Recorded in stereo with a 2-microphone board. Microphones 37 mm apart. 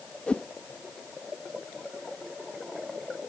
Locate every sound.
0.3 s a whoosh: 30° left (ahead or behind)